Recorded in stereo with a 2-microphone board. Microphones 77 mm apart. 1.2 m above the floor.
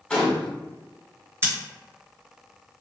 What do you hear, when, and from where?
0.1 s a gunshot: 15° left (ahead or behind), 0.9 m
1.4 s scissors: 25° right (ahead or behind), 1.7 m